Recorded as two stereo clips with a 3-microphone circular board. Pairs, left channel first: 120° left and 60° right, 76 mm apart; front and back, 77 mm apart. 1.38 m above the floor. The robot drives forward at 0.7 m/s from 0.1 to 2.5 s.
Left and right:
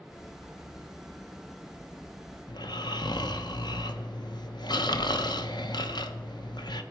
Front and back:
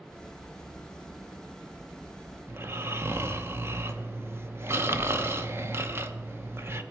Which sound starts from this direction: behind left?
Snoring, at 2.5 s.